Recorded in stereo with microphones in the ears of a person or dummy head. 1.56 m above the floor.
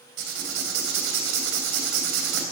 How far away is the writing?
About 3.5 m.